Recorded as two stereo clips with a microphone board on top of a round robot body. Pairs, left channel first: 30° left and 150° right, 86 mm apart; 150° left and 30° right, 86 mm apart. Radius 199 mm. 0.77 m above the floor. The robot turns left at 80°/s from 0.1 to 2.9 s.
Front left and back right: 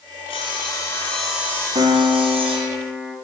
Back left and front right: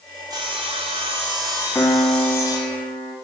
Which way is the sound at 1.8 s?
140° right.